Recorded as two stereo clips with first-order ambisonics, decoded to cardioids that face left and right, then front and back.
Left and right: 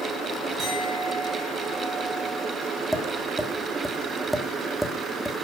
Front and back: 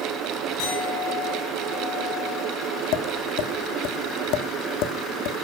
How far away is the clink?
About 8 m.